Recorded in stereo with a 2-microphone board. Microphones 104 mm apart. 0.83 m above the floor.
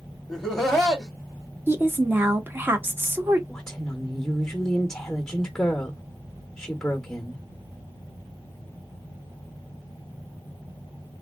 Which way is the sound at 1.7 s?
20° right (ahead or behind).